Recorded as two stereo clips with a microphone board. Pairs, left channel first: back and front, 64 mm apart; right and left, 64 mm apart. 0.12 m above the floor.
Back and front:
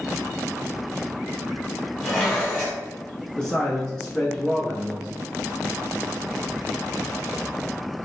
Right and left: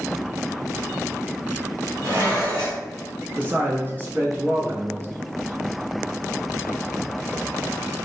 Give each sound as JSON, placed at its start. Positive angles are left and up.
{"t": 2.0, "sound": "dishes clattering", "azimuth_deg": 100, "distance_m": 1.7}
{"t": 3.4, "sound": "a man speaking", "azimuth_deg": 110, "distance_m": 1.4}